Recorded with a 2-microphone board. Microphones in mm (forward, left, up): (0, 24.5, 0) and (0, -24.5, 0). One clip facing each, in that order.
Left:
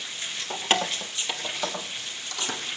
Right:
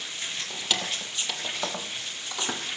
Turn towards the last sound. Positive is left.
turn(degrees=-20)  # may be behind; listen again after turning